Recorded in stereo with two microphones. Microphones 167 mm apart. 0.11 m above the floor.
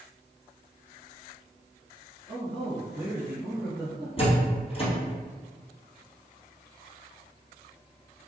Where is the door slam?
35° left (ahead or behind), 1.9 m.